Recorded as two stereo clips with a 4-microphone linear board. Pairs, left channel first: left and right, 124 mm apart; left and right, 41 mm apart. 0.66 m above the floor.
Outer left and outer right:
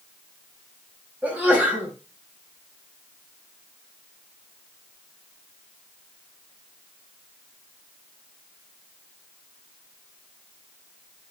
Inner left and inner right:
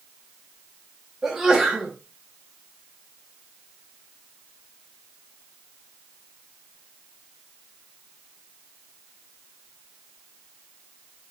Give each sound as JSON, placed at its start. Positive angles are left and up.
{"t": 1.2, "sound": "a sneeze", "side_deg": -10, "distance_m": 3.5}